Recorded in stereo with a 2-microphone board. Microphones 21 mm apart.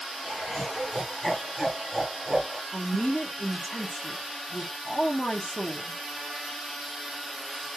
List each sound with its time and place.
0.2 s laughter: 20° left (ahead or behind), 3 m; by 2.6 s 35° right (ahead or behind), 1.0 m
2.7 s a woman speaking: 90° left, 1.1 m